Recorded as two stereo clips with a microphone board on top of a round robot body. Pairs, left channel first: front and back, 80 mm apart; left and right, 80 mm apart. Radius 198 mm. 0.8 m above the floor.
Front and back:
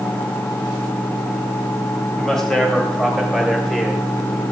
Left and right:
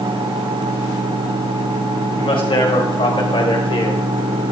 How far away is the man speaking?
About 5 m.